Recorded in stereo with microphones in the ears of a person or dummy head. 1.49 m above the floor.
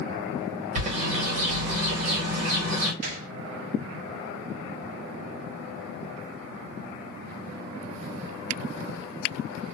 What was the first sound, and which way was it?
A bird, 45° right (ahead or behind).